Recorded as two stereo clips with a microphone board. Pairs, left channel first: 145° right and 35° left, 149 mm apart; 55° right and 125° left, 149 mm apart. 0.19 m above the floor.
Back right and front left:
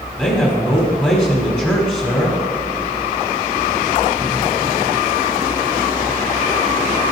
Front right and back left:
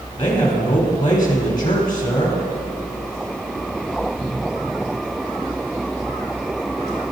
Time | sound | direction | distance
0.2 | a man speaking | 75° right | 1.3 m